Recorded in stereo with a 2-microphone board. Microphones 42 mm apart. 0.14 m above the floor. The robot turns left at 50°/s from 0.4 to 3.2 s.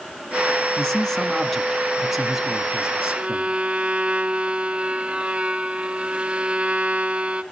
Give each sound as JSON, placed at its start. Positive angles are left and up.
{"t": 0.8, "sound": "a man speaking", "side_deg": 15, "distance_m": 1.1}
{"t": 3.1, "sound": "a violin", "side_deg": -25, "distance_m": 0.9}